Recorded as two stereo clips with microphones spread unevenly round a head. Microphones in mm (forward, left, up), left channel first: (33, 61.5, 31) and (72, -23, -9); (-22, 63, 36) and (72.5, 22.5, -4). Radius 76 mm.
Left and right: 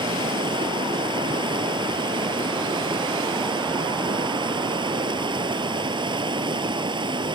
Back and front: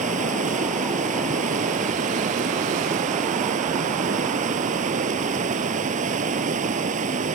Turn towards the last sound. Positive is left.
turn(degrees=-25)